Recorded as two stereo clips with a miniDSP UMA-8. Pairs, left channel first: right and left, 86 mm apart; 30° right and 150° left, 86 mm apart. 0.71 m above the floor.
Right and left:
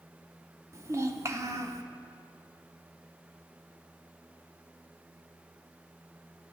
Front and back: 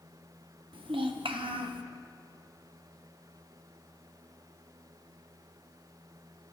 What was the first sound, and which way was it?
A child speaking, 145° left.